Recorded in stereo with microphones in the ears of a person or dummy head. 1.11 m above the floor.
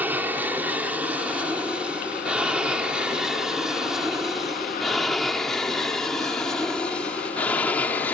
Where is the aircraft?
5° right (ahead or behind); by 8.2 s 15° left (ahead or behind).